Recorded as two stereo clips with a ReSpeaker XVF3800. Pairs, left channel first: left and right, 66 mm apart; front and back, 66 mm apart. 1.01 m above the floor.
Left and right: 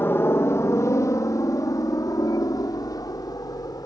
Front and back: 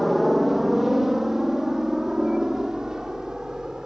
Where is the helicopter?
90° left; by 3.9 s 100° left.